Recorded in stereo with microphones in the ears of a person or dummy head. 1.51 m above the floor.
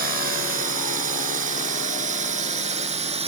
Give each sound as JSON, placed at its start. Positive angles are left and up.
{"t": 0.0, "sound": "a drone", "side_deg": -45}